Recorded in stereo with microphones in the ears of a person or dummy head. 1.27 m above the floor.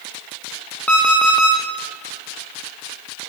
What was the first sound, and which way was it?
An alarm clock, centre (ahead or behind).